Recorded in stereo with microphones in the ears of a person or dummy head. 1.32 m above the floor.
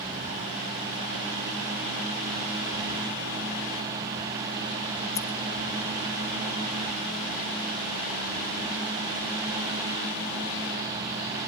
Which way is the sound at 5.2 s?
10° left (ahead or behind).